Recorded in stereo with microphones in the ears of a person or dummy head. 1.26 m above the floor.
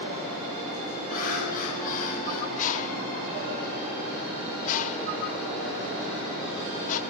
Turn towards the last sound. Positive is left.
turn(degrees=45)  # may be behind; listen again after turning